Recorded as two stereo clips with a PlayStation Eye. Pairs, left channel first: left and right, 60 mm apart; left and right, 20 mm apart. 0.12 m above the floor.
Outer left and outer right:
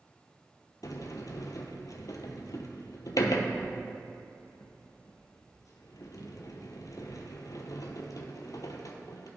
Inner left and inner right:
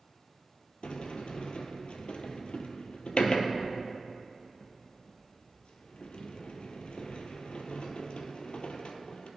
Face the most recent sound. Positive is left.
turn(degrees=70)  # may be behind; listen again after turning